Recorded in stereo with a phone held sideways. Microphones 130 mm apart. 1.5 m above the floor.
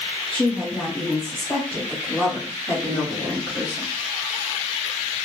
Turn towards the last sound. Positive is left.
turn(degrees=20)  # may be behind; listen again after turning